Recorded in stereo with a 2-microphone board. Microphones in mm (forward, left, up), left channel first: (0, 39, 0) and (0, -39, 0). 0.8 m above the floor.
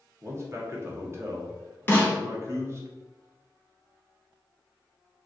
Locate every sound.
0.2 s a man speaking: 35° right (ahead or behind), 0.7 m
1.9 s a snare drum: 25° left (ahead or behind), 0.7 m